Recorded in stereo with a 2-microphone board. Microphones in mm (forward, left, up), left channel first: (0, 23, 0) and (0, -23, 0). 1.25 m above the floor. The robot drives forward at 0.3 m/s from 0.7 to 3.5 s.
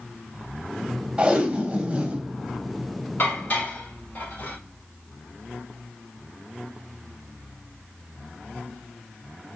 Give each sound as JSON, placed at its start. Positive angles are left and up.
{"t": 1.2, "sound": "tape being pulled", "side_deg": -25, "distance_m": 1.3}
{"t": 3.2, "sound": "dishes clattering", "side_deg": 40, "distance_m": 3.5}